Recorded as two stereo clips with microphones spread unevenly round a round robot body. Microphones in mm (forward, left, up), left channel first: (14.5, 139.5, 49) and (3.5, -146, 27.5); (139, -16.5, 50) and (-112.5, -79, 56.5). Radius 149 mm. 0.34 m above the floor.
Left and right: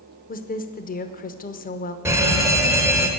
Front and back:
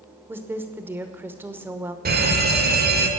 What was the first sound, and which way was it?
A woman speaking, 120° left.